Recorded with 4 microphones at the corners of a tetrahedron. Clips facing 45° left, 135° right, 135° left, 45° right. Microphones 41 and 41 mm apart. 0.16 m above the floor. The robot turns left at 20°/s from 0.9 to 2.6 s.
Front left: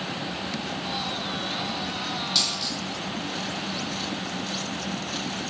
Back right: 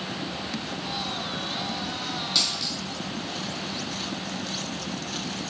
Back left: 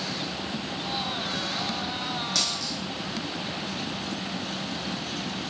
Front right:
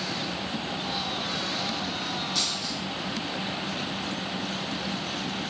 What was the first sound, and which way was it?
A dropped coin, 130° left.